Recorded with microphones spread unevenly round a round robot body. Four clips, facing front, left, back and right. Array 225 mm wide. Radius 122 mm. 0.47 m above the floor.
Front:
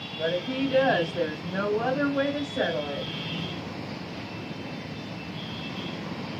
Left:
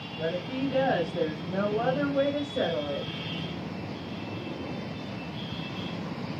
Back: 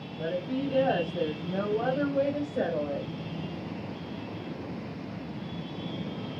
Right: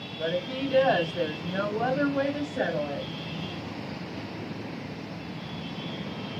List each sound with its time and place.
0.2 s a woman speaking: 145° left, 3 m; by 3.1 s 170° left, 1.7 m